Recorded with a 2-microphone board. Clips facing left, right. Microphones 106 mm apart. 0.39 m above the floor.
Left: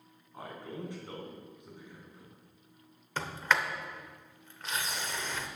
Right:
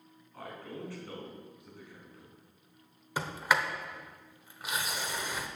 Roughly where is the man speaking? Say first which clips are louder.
Left 1 dB; centre.